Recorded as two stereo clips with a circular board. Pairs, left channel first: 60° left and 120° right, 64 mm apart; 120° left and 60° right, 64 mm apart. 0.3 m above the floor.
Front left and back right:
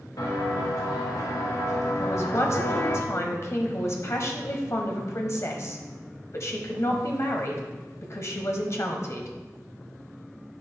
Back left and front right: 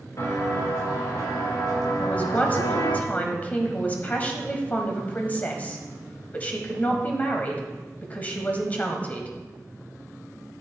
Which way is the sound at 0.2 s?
85° left.